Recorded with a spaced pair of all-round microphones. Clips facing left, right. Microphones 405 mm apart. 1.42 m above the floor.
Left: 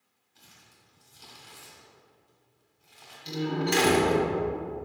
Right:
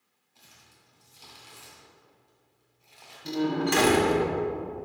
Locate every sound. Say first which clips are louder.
0.3 s crumpling: left 1 dB; 30° left (ahead or behind), 1.9 m
3.2 s a door slam: right 3 dB; 65° right (ahead or behind), 1.2 m